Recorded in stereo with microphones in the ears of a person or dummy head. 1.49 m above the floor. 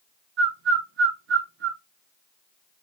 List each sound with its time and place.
0.4 s a bird: 70° right (ahead or behind), 0.9 m